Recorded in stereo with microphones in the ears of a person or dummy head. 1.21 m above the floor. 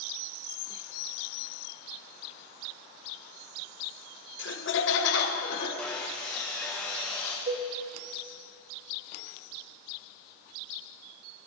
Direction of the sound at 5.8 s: Centre (ahead or behind).